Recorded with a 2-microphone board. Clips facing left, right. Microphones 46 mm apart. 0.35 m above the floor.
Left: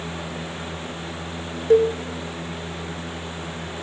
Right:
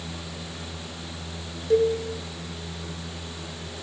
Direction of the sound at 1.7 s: 45° left (ahead or behind).